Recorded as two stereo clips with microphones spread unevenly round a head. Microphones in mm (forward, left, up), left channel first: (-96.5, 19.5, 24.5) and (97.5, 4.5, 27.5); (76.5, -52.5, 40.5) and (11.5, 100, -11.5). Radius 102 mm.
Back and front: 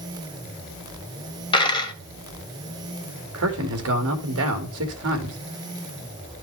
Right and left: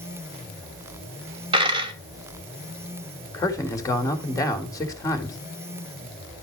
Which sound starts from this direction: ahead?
A man speaking, at 3.3 s.